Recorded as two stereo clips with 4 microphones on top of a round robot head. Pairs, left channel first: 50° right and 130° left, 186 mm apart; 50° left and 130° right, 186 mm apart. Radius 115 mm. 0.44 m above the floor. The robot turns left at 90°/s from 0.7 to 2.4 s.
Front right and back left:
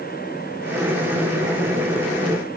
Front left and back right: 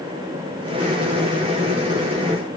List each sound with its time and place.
Only background noise.